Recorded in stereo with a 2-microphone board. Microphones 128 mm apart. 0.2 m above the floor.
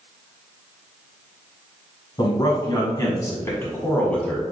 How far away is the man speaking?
About 1.3 m.